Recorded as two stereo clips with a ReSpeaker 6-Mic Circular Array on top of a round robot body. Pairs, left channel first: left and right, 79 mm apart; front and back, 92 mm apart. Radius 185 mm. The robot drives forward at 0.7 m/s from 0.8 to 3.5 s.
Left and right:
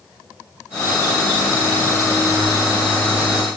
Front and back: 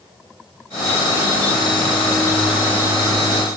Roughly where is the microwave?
No microwave in this recording.